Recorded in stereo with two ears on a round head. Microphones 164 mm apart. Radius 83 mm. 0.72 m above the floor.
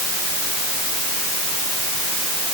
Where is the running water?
I don't hear running water.